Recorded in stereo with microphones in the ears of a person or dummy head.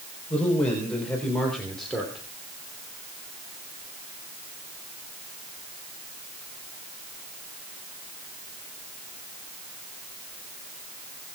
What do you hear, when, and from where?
0.3 s a man speaking: 10° left (ahead or behind), 3.5 m; by 2.2 s centre (ahead or behind), 2.5 m